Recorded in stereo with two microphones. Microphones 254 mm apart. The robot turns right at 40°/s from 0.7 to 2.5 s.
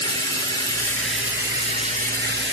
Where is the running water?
165° left, 2 m; by 2.5 s 125° right, 2 m.